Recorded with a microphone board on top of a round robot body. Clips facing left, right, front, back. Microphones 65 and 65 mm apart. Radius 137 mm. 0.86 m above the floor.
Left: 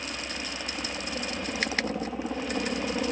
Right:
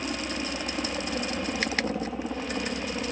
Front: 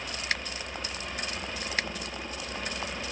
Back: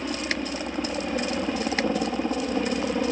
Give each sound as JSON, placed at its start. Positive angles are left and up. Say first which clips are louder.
{"t": 0.0, "sound": "a helicopter", "louder": "right 4 dB, back 6 dB", "azimuth_deg": -155}